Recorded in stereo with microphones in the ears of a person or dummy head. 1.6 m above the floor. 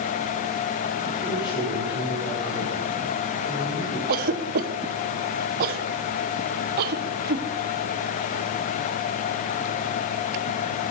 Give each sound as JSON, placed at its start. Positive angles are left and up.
{"t": 1.2, "sound": "a man speaking", "side_deg": 25, "distance_m": 5.5}
{"t": 4.1, "sound": "a cough", "side_deg": -50, "distance_m": 1.0}